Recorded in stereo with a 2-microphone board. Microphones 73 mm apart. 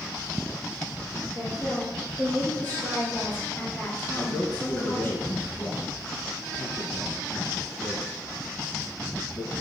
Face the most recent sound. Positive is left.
turn(degrees=25)  # may be behind; listen again after turning